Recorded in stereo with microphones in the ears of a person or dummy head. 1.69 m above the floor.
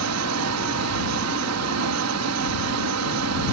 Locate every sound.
0.0 s a fan: 75° right (ahead or behind)